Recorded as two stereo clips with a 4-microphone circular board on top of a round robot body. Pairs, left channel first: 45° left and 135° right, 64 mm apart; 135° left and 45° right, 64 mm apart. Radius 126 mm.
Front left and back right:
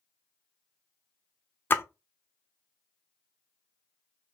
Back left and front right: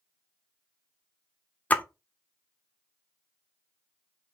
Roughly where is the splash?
Left.